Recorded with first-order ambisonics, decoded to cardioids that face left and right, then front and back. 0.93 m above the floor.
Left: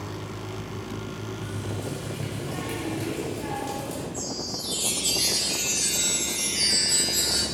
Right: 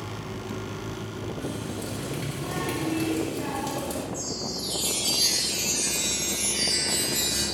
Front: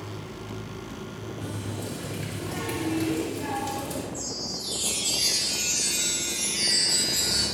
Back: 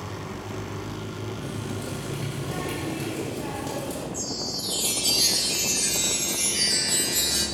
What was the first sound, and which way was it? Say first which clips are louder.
A running tap: right 1 dB, back 2 dB; 110° right.